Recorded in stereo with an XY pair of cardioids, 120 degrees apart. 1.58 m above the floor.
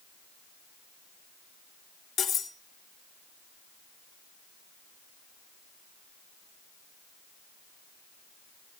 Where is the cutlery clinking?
60° left, 2 m.